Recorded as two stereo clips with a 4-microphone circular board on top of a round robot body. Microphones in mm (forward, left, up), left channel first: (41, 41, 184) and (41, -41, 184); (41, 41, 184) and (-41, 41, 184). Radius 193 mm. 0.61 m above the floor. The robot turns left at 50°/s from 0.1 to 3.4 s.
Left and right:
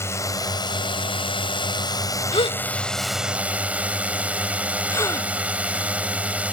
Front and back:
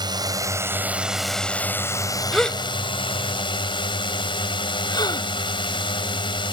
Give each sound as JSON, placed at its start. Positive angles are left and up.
{"t": 0.0, "sound": "a drone", "azimuth_deg": 150}
{"t": 2.3, "sound": "a gasp", "azimuth_deg": 90}